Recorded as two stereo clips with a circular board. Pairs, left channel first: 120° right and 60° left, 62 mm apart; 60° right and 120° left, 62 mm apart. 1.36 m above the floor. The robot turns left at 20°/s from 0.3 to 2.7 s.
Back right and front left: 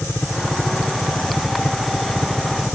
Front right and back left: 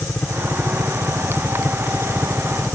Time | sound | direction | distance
0.0 | a helicopter | 90° right | ?